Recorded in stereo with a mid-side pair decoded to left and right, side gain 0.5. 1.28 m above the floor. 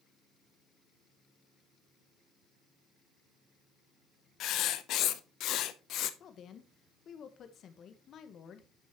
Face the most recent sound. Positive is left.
turn(degrees=55)